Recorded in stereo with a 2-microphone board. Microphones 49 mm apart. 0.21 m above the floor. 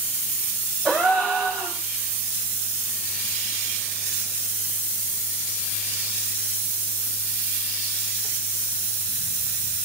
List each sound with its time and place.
0.8 s a gasp: 10° left (ahead or behind), 8.5 m